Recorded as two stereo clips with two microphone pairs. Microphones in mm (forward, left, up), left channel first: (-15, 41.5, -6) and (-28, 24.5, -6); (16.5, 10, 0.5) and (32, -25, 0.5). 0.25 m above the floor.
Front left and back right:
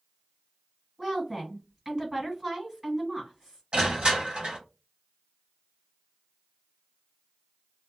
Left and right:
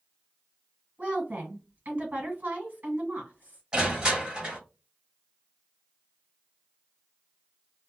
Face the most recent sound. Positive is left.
turn(degrees=-125)